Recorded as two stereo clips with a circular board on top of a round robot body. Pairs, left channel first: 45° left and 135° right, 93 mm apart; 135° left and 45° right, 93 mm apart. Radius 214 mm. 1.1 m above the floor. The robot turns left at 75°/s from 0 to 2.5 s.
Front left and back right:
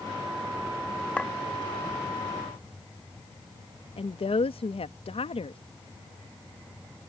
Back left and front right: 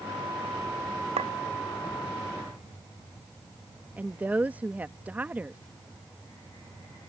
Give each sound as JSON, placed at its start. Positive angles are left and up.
{"t": 1.2, "sound": "a clink", "azimuth_deg": -35}
{"t": 4.0, "sound": "a woman speaking", "azimuth_deg": 30}